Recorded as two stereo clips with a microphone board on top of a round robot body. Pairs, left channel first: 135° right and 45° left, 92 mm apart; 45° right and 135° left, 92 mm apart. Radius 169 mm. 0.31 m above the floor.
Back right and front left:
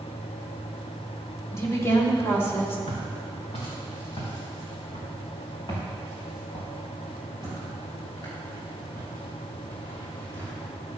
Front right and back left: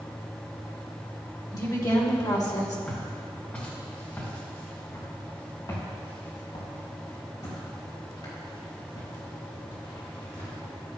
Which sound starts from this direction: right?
A woman speaking, at 1.5 s.